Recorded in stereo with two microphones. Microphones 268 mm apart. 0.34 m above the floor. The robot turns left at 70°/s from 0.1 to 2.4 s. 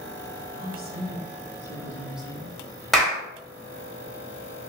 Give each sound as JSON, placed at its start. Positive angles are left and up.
{"t": 0.6, "sound": "a woman speaking", "azimuth_deg": -60, "distance_m": 1.0}
{"t": 2.9, "sound": "a clap", "side_deg": 0, "distance_m": 0.9}